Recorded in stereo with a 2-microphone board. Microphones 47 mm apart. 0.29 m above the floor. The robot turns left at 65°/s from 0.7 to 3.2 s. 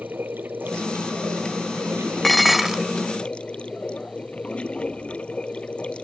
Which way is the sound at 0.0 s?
40° right.